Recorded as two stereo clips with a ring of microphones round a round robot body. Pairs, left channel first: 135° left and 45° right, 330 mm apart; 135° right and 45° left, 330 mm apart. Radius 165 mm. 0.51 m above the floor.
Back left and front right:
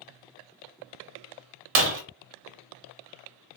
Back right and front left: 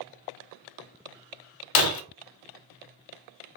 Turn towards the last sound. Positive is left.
turn(degrees=-100)